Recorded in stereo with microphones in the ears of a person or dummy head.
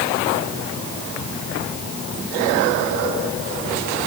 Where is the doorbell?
I don't hear a doorbell.